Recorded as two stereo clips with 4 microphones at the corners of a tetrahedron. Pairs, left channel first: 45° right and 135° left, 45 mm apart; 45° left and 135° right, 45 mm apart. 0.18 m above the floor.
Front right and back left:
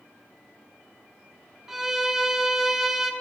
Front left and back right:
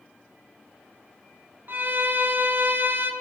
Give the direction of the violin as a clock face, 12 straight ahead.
5 o'clock.